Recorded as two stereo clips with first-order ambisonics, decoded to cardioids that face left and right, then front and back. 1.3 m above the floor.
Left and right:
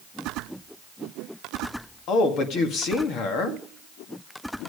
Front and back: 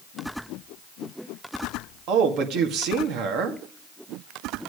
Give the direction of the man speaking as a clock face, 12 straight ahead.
7 o'clock.